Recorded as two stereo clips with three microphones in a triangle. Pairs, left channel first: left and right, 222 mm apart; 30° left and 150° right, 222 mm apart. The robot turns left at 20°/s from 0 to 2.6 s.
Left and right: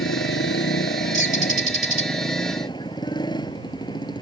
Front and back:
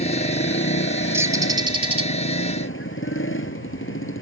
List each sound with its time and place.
0.0 s a motorcycle: 75° left; by 4.2 s 20° left
1.1 s a bird: 70° right; by 2.1 s 90° right